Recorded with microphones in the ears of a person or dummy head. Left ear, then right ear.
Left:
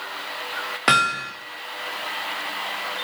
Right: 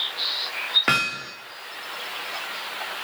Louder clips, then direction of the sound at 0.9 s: Left 4 dB; 10° left (ahead or behind).